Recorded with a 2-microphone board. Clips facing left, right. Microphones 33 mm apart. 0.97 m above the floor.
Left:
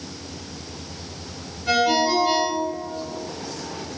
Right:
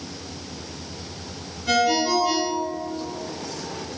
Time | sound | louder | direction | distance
1.7 | a ringtone | left 1 dB | 25° left (ahead or behind) | 1.7 m